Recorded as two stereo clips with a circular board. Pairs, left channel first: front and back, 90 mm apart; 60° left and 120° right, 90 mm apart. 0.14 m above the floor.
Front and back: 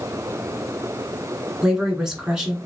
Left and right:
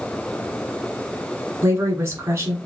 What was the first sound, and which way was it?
A woman speaking, 100° right.